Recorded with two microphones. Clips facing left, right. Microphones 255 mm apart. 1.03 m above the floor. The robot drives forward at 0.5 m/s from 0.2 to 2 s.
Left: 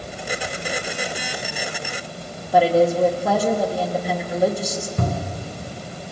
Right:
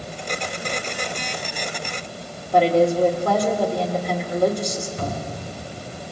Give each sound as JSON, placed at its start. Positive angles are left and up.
{"t": 2.5, "sound": "a woman speaking", "side_deg": 5, "distance_m": 1.8}
{"t": 5.0, "sound": "a cupboard door", "side_deg": 65, "distance_m": 3.0}